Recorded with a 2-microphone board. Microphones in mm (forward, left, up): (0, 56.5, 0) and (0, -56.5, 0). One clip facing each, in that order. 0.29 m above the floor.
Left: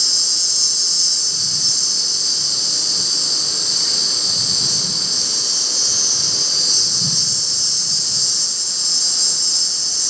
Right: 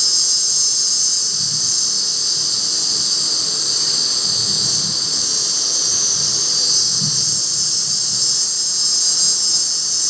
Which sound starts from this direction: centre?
An insect, at 0.0 s.